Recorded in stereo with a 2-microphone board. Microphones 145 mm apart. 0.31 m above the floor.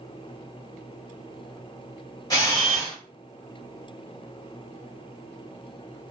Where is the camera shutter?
25° left (ahead or behind), 1.6 m.